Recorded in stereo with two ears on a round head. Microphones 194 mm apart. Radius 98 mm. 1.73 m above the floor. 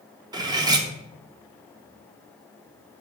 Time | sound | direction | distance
0.3 | cutlery clinking | 20° right (ahead or behind) | 0.9 m